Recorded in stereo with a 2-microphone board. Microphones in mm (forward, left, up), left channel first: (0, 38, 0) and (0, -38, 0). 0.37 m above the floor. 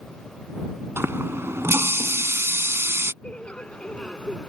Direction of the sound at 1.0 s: 30° right (ahead or behind).